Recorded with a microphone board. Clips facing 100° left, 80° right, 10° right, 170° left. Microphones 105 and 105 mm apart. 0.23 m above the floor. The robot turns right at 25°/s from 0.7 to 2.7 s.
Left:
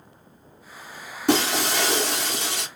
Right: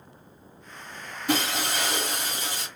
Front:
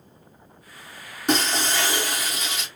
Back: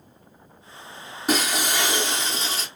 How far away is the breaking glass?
About 1.3 m.